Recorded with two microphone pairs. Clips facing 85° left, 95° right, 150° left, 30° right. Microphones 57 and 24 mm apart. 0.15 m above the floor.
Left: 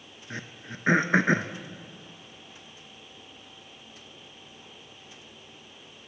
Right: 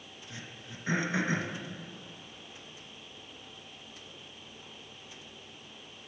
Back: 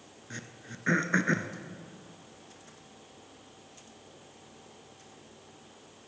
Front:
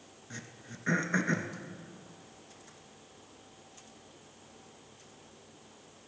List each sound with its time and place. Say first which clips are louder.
0.3 s throat clearing: left 8 dB, back 3 dB; 70° left, 0.6 m